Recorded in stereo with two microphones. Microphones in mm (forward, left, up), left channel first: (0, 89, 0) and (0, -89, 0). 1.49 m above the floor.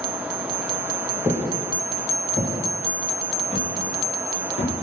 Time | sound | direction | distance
1.2 | footsteps | 15° right (ahead or behind) | 1.6 m